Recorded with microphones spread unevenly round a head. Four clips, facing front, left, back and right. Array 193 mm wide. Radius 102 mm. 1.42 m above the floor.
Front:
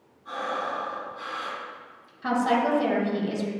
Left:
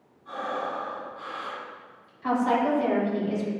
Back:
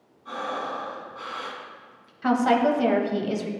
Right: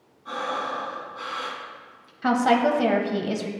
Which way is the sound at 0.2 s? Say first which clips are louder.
Right 2 dB, even; 90° right.